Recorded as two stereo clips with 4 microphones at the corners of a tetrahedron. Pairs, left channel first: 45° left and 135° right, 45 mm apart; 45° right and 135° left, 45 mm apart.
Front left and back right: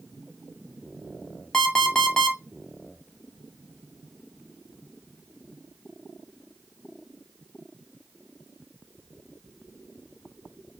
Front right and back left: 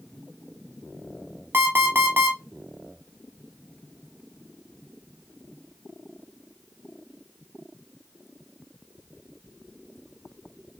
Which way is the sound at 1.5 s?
120° left.